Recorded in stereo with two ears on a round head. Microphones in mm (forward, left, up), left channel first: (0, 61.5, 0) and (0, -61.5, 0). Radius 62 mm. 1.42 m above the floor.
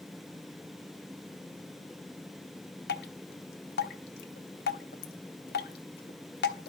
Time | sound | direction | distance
2.9 | dripping | 80° left | 0.6 m